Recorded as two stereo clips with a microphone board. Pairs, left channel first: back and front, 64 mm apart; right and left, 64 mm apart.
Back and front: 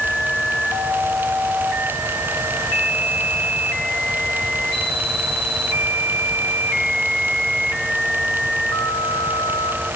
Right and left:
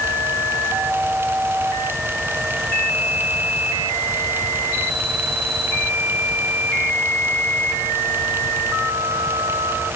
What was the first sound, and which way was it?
Only background noise.